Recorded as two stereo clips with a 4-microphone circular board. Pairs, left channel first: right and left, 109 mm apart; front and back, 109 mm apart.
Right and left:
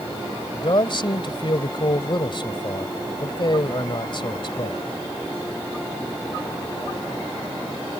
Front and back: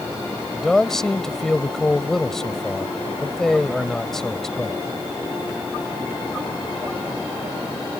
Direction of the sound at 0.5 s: 85° right.